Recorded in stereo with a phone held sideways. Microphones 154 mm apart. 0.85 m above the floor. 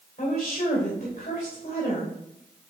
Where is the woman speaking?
50° left (ahead or behind), 3 m.